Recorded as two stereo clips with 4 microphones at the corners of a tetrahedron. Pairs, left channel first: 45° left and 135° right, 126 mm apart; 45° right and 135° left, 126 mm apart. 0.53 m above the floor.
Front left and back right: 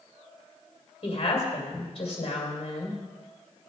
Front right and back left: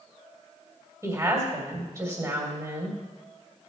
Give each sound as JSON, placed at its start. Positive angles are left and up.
{"t": 1.0, "sound": "a woman speaking", "azimuth_deg": 75, "distance_m": 2.5}